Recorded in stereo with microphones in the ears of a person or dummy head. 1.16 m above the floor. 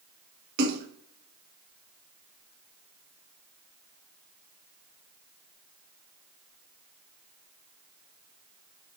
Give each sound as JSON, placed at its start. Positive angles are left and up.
{"t": 0.6, "sound": "a splash", "side_deg": -55, "distance_m": 1.3}